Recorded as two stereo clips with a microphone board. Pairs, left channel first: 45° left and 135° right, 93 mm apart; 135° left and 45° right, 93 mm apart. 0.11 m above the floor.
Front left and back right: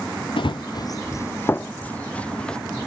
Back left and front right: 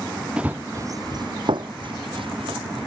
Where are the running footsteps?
35° left; by 2.6 s 35° right.